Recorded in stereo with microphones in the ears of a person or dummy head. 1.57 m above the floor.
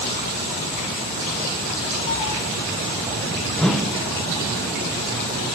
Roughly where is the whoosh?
Centre.